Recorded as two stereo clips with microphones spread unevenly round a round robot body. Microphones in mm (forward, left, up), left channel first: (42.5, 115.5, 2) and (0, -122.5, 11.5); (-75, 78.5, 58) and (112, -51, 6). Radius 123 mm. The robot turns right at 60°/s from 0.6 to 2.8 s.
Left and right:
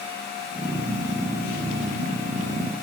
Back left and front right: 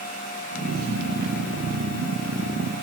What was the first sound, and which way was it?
Only background noise.